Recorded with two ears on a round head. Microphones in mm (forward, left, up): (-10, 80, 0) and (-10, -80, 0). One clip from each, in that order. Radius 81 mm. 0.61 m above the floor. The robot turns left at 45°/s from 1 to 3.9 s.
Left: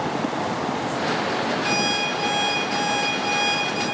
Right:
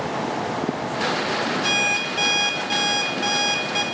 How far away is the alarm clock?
About 1.0 m.